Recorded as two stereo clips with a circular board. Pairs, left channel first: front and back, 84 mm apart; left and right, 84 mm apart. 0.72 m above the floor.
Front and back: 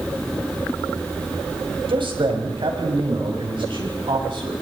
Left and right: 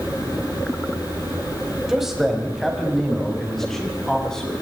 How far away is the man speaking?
About 4.5 m.